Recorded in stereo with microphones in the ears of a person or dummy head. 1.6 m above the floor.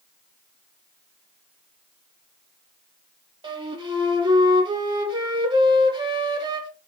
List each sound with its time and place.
3.4 s a flute: 25° right (ahead or behind), 1.1 m